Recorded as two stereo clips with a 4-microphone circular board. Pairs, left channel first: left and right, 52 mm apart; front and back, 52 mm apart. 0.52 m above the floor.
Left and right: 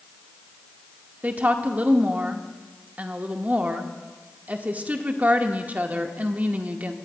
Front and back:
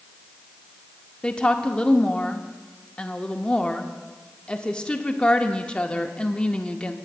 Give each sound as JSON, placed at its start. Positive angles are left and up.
{"t": 1.2, "sound": "a woman speaking", "azimuth_deg": -60, "distance_m": 0.8}